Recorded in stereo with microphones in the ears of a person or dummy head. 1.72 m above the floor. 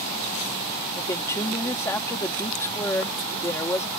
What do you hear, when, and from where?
0.9 s a woman speaking: 15° left (ahead or behind)